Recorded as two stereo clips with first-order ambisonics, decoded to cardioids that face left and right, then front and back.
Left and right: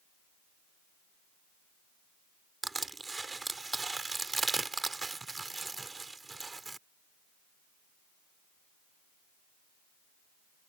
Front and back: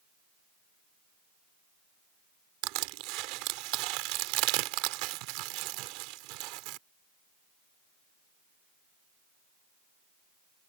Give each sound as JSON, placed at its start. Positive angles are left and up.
{"t": 2.6, "sound": "crushing", "azimuth_deg": -170}